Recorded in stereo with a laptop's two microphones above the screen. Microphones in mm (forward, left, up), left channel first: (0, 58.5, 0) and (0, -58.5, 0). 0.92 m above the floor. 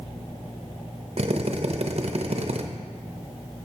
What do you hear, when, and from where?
1.2 s a drill: 60° right (ahead or behind), 0.6 m